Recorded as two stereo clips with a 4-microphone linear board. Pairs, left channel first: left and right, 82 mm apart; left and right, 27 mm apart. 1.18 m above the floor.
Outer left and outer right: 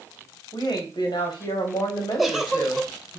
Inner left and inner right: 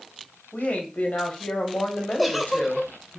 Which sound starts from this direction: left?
A woman speaking, at 0.5 s.